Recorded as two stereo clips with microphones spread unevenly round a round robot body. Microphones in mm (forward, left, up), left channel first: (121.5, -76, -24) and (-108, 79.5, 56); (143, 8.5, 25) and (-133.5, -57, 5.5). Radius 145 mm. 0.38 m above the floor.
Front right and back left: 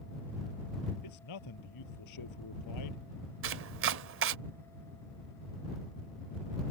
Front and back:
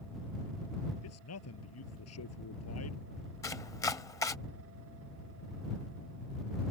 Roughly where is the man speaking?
Ahead right.